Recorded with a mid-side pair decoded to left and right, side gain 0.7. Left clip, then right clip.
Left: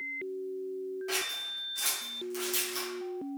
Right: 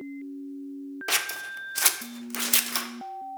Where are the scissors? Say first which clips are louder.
Right 7 dB; 55° right, 0.5 m.